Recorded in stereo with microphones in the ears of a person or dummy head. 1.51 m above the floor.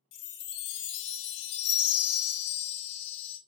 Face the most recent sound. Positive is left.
turn(degrees=65)  # may be behind; listen again after turning